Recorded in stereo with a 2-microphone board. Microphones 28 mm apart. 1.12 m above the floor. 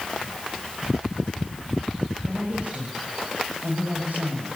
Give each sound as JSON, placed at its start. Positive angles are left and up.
{"t": 2.3, "sound": "a woman speaking", "side_deg": -55, "distance_m": 6.5}